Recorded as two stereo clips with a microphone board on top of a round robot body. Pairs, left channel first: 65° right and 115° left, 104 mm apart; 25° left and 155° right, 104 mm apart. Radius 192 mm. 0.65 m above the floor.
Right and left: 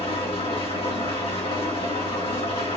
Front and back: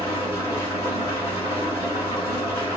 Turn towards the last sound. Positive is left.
turn(degrees=-95)